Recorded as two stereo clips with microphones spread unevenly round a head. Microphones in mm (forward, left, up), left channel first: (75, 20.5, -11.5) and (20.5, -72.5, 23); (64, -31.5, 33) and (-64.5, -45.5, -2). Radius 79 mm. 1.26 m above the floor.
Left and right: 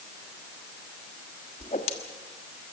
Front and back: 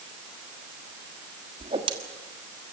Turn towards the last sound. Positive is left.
turn(degrees=120)